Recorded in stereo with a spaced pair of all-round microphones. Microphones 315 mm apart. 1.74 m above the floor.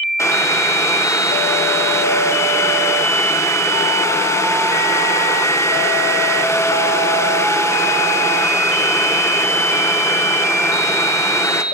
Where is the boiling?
10° left (ahead or behind), 0.8 m.